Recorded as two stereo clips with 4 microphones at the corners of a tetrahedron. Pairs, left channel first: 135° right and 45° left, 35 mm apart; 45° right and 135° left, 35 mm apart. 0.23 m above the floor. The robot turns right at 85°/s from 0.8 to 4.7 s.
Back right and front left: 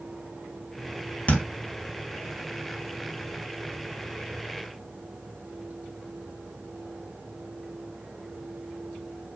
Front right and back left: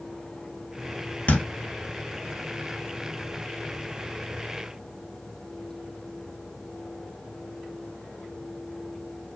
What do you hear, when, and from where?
1.3 s a thud: 85° right, 1.4 m; by 1.4 s 75° right, 1.4 m